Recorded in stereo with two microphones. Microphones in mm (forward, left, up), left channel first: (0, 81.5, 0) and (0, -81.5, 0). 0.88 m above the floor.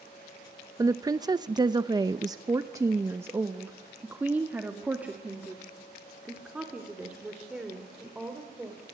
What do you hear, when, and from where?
0.8 s a woman speaking: 20° right (ahead or behind), 0.8 m; by 8.8 s 5° right (ahead or behind), 3.5 m